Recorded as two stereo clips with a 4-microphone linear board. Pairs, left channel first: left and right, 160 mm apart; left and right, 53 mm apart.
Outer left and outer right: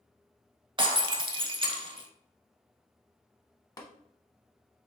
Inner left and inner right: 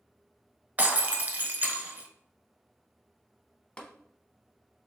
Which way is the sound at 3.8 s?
25° left (ahead or behind).